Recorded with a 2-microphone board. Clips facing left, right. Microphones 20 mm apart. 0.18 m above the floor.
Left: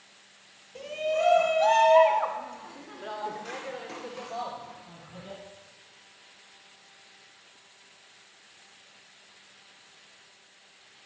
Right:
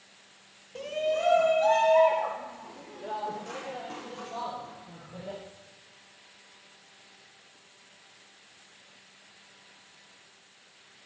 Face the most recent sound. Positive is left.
turn(degrees=60)  # may be behind; listen again after turning